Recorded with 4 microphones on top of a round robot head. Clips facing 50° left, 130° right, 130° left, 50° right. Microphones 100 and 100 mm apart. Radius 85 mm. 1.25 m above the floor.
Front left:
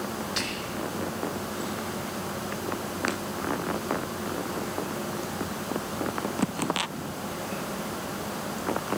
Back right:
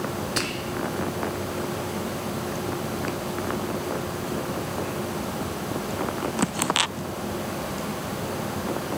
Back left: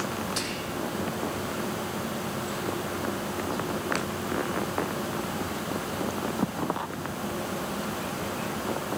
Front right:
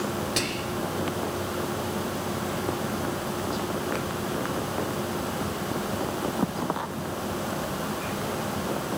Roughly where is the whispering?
Right.